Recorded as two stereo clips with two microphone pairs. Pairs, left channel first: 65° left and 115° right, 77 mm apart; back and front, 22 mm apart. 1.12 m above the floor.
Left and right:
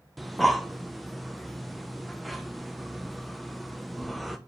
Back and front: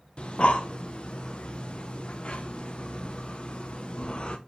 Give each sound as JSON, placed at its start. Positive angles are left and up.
{"t": 0.2, "sound": "breathing", "azimuth_deg": 155, "distance_m": 0.5}